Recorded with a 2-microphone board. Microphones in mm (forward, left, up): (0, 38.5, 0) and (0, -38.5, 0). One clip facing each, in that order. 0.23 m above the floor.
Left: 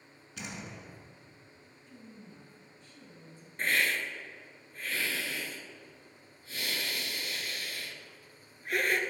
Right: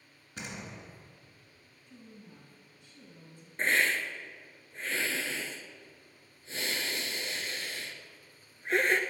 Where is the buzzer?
I don't hear a buzzer.